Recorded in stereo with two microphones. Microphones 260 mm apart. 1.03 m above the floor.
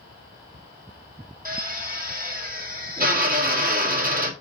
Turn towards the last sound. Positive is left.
turn(degrees=-35)  # may be behind; listen again after turning